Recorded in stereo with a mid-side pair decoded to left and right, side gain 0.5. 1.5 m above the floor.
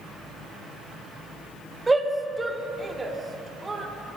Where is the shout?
20° right, 3.5 m; by 3.9 s 25° right, 5.5 m.